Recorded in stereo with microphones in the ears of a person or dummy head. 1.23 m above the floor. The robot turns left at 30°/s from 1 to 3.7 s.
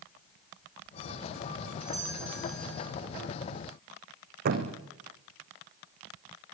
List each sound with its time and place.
1.8 s a doorbell: 160° right, 6 m; by 2.9 s 170° left, 6 m
4.5 s a thud: 55° right (ahead or behind), 4 m